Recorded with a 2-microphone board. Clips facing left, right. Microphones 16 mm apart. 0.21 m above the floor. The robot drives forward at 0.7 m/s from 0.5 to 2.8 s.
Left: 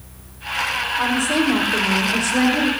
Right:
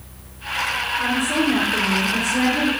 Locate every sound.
1.0 s a woman speaking: 65° left (ahead or behind), 7.5 m; by 2.7 s 70° left (ahead or behind), 7 m